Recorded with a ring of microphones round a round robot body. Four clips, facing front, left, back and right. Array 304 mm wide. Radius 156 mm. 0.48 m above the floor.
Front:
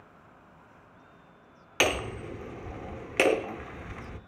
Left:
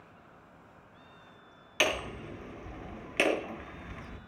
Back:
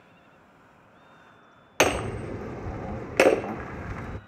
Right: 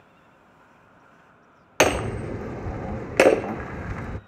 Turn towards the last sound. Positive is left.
turn(degrees=-110)